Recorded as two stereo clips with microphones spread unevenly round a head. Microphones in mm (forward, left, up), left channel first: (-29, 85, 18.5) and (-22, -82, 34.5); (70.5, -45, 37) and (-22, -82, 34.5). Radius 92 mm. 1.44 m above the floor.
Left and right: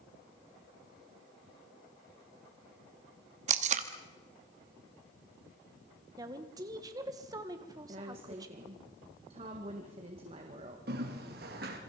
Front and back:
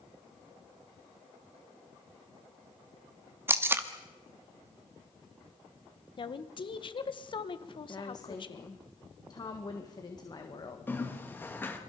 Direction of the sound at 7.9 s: 25° right.